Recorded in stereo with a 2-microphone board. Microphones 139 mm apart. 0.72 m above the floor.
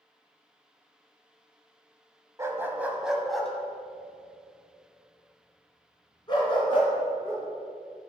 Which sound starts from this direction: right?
A dog barking, at 2.4 s.